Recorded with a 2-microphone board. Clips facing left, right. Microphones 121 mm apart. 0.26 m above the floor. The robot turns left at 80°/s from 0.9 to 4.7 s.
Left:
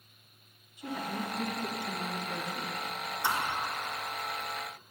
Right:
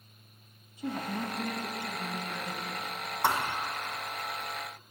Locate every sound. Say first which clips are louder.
0.8 s a woman speaking: right 2 dB; 135° right, 1.5 m; by 2.8 s 75° left, 1.5 m
3.2 s a thud: right 3 dB; 65° right (ahead or behind), 1.1 m; by 3.5 s 85° right, 1.1 m